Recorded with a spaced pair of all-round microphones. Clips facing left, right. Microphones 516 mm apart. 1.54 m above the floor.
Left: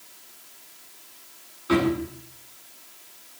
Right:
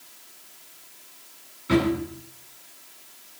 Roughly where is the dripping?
No dripping in this recording.